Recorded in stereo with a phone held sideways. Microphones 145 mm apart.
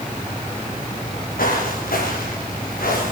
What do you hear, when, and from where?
1.0 s footsteps: 80° left, 8.5 m; by 3.1 s 85° left, 8.5 m